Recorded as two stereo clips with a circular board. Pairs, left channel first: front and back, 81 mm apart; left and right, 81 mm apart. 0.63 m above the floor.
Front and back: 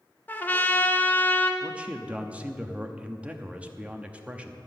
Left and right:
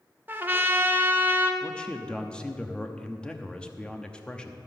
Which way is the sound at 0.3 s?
50° right.